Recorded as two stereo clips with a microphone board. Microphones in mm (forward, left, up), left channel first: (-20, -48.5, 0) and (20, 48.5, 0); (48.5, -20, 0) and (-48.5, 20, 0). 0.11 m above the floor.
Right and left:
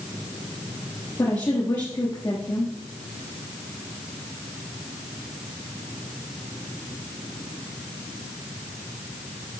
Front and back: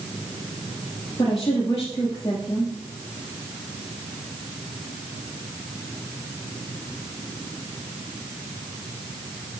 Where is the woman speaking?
70° right, 2.5 m.